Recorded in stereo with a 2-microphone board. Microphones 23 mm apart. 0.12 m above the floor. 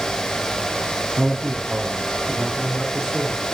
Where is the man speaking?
20° right (ahead or behind), 5 m; by 3.5 s 25° right (ahead or behind), 8.5 m.